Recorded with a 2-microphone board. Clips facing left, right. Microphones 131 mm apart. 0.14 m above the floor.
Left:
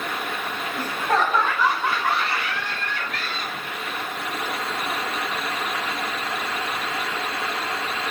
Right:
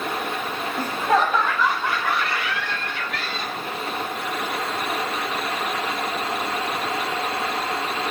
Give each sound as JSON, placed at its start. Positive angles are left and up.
{"t": 0.8, "sound": "laughter", "side_deg": -15, "distance_m": 1.4}